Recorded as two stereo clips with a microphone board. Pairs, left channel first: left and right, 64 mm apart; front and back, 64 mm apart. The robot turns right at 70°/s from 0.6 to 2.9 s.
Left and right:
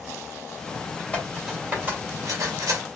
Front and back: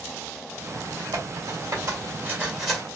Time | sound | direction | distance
1.1 | cutlery clinking | 160° left | 2 m